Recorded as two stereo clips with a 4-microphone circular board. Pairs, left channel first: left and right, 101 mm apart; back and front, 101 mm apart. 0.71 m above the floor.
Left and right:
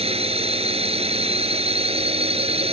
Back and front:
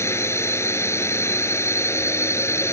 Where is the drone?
115° right.